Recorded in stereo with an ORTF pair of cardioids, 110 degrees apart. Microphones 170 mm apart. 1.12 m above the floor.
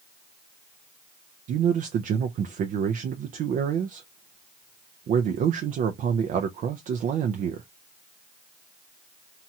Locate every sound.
1.5 s a man speaking: 55° right, 0.5 m